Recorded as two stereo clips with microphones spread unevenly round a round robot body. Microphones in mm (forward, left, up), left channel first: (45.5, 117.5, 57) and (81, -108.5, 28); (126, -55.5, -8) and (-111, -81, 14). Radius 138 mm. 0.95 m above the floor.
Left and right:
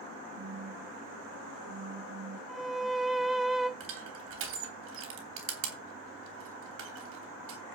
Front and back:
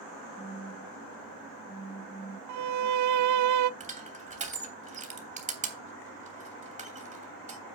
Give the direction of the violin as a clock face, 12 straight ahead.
6 o'clock.